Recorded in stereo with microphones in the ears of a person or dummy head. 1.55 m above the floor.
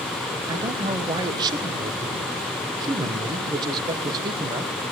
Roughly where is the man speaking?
Right.